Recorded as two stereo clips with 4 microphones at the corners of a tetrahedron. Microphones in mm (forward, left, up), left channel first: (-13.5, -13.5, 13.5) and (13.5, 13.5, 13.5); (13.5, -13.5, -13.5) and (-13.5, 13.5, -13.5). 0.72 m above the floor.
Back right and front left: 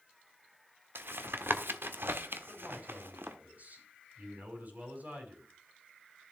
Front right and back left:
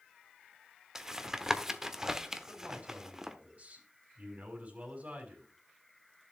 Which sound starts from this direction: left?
A man speaking, at 2.5 s.